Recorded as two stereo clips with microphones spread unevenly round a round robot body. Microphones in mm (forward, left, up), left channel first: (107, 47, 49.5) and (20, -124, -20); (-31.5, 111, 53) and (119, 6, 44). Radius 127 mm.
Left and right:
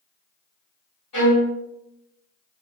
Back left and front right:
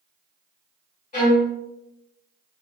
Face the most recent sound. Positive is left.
turn(degrees=105)